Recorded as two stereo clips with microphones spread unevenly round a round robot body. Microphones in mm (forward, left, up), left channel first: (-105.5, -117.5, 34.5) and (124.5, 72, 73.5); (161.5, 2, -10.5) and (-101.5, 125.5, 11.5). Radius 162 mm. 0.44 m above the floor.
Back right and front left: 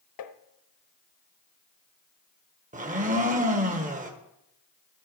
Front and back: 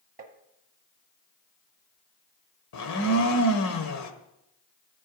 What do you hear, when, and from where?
0.2 s tapping: 135° right, 1.0 m
2.7 s a blender: 25° right, 1.6 m